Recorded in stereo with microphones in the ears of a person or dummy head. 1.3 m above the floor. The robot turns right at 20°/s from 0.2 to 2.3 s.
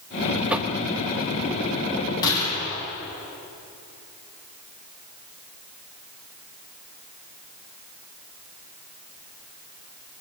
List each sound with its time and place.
0.5 s knocking: 5° right (ahead or behind), 0.8 m; by 0.8 s centre (ahead or behind), 0.8 m
2.2 s a gunshot: 25° left (ahead or behind), 9.5 m